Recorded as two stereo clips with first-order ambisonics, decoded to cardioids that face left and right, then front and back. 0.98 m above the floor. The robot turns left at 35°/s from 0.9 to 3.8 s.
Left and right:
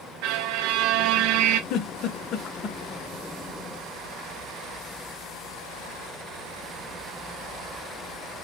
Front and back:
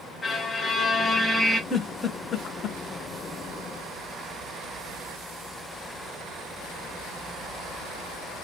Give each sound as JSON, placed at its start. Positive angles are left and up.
{"t": 0.2, "sound": "a violin", "azimuth_deg": -75, "distance_m": 0.7}
{"t": 1.7, "sound": "a giggle", "azimuth_deg": 80, "distance_m": 0.9}